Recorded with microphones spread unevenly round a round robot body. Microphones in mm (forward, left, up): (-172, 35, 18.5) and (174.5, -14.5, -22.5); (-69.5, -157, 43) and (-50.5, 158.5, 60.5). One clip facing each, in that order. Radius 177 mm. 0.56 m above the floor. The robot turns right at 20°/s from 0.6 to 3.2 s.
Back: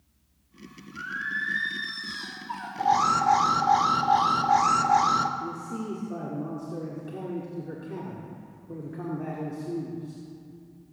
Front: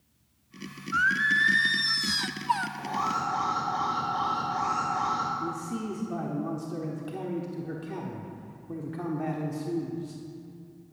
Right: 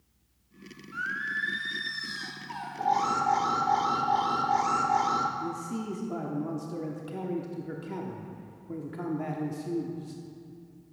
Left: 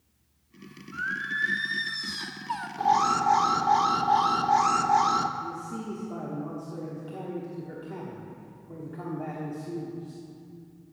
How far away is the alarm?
About 0.9 m.